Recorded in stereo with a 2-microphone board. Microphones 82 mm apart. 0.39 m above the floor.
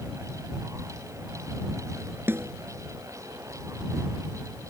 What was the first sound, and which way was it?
A snare drum, 30° right (ahead or behind).